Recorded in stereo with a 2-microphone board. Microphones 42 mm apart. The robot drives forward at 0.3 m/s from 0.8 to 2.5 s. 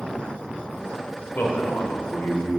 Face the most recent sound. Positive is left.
turn(degrees=65)  # may be behind; listen again after turning